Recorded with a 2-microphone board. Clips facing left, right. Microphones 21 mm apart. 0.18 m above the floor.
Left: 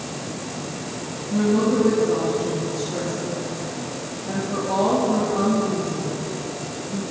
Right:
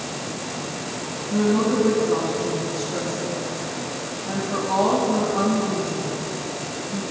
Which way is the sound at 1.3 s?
Centre (ahead or behind).